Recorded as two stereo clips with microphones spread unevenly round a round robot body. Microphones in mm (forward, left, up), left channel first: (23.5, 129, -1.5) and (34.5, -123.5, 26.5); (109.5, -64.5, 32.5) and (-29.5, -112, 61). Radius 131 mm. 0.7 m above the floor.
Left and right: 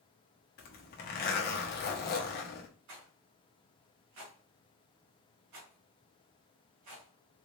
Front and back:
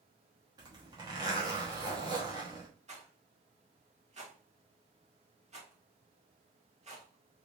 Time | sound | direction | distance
0.6 | a zipper | 130° left | 0.9 m
2.9 | a rattle | 115° right | 1.6 m